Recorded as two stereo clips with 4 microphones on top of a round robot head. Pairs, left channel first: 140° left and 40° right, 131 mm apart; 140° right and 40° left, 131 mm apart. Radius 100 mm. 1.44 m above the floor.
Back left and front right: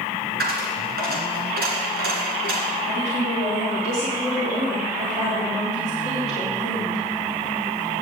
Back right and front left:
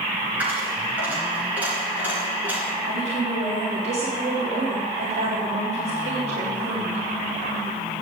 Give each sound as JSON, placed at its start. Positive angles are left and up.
{"t": 0.4, "sound": "a dropped coin", "azimuth_deg": -40, "distance_m": 2.5}
{"t": 2.9, "sound": "a woman speaking", "azimuth_deg": 0, "distance_m": 3.5}